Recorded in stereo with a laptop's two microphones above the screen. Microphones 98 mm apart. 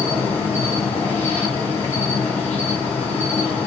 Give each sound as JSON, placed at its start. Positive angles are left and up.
{"t": 0.0, "sound": "an insect", "side_deg": 20, "distance_m": 3.5}